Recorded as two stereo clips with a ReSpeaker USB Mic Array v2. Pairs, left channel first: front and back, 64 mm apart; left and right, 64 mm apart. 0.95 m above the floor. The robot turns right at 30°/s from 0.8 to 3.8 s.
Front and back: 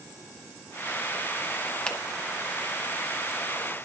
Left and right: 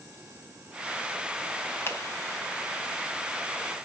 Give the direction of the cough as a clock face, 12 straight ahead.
No cough in this recording.